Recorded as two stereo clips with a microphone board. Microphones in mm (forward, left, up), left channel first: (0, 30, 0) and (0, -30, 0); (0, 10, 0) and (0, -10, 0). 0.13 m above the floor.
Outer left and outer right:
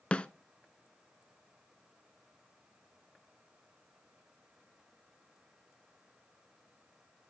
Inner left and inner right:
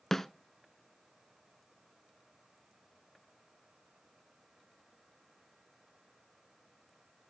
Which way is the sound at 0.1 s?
20° left (ahead or behind).